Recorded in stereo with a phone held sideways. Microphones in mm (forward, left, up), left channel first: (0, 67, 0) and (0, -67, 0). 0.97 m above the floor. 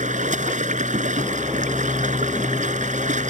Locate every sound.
0.0 s running water: 70° right (ahead or behind)